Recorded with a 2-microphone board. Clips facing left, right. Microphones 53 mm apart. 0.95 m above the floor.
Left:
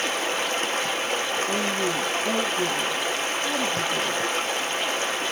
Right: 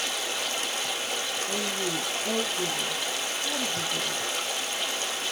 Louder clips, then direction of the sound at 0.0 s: Left 6 dB; 40° left (ahead or behind).